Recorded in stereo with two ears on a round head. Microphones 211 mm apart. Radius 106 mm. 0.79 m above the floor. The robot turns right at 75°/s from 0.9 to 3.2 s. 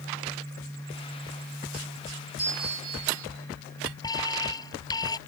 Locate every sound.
2.4 s a bell: 175° right; by 3.3 s 110° right
4.0 s an alarm: 20° left (ahead or behind)